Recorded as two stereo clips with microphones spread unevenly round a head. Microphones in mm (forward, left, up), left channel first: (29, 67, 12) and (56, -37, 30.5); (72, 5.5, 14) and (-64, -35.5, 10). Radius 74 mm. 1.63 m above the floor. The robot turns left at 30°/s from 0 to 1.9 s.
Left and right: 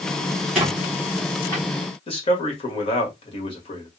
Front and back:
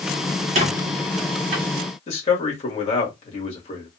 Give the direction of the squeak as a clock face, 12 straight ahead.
5 o'clock.